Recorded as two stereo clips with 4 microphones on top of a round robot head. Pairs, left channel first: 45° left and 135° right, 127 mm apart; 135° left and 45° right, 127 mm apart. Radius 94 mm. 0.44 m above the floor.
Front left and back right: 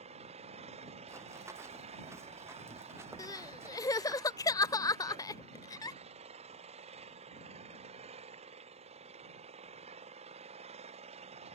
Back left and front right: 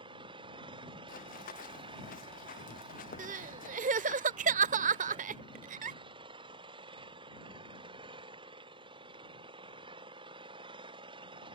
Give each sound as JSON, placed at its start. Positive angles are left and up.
{"t": 0.0, "sound": "an engine running", "azimuth_deg": -95}
{"t": 1.1, "sound": "running footsteps", "azimuth_deg": 150}
{"t": 3.2, "sound": "crying", "azimuth_deg": -20}